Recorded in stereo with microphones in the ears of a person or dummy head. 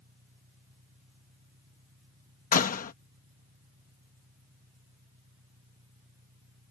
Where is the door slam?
40° left (ahead or behind).